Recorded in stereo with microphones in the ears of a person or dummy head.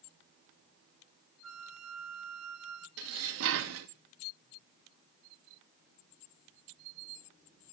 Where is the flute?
75° right (ahead or behind), 1.2 m.